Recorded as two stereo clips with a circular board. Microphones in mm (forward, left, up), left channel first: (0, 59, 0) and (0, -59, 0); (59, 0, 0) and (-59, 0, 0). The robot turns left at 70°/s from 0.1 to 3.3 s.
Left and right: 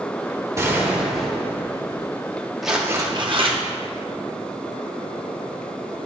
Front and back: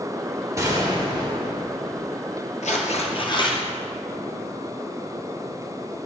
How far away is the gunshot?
About 1.2 m.